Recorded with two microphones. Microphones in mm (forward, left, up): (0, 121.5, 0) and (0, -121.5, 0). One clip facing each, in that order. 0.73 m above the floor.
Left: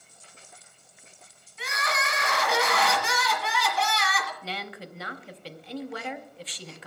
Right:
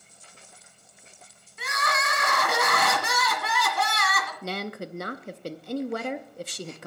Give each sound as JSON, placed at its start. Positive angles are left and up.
{"t": 1.6, "sound": "crying", "side_deg": -55, "distance_m": 1.6}
{"t": 4.4, "sound": "a woman speaking", "side_deg": -50, "distance_m": 0.6}